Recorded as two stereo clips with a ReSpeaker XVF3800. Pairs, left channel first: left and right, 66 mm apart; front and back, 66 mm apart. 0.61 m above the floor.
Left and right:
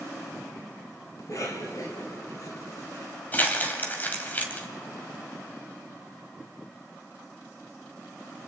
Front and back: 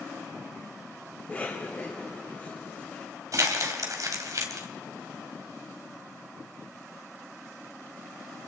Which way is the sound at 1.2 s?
65° left.